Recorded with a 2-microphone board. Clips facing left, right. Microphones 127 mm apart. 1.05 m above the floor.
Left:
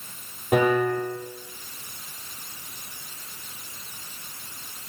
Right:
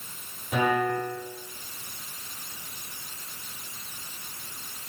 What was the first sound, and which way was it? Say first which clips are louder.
A piano: left 4 dB; 80° left.